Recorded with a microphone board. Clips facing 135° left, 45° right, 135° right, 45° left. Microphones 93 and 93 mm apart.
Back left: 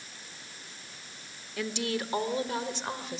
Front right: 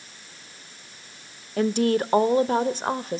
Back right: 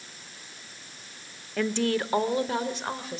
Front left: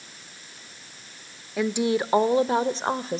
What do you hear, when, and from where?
1.6 s a woman speaking: 35° right, 0.9 m; by 3.2 s 5° right, 1.5 m